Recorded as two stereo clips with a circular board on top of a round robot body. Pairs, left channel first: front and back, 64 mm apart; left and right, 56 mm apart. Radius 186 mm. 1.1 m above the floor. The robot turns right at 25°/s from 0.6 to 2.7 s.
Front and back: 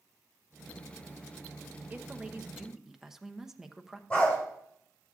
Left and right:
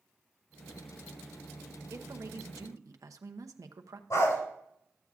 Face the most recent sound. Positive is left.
turn(degrees=80)